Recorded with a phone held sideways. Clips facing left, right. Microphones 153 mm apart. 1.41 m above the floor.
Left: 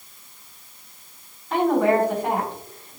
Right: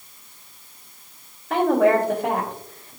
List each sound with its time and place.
1.5 s a woman speaking: 75° right (ahead or behind), 2.5 m